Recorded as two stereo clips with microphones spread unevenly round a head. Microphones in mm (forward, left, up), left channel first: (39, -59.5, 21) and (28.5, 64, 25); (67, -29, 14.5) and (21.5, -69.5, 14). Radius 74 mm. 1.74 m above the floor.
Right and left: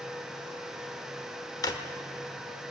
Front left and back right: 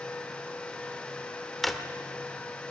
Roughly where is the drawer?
Ahead right.